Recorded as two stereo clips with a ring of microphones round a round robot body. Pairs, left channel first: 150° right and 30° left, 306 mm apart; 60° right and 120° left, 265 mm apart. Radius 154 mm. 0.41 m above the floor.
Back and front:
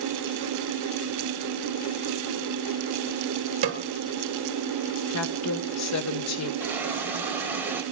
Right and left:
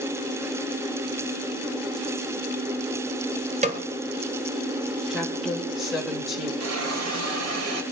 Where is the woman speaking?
150° right, 1.4 m.